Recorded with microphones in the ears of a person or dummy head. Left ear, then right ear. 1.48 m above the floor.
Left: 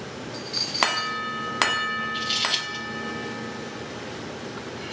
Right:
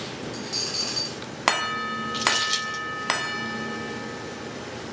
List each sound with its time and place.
0.3 s a dropped coin: 45° right (ahead or behind), 2 m
2.1 s crumpling: 40° right (ahead or behind), 2 m